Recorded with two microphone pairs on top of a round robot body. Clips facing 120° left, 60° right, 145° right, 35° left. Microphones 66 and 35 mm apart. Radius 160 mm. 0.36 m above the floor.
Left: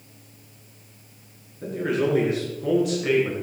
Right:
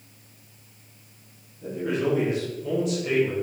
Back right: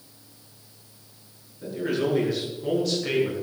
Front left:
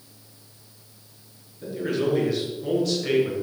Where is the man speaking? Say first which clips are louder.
Left 2 dB, front left 1 dB; 125° left, 7 m.